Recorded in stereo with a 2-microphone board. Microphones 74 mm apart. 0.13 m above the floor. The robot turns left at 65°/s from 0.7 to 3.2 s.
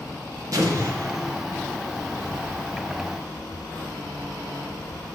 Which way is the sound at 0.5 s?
100° right.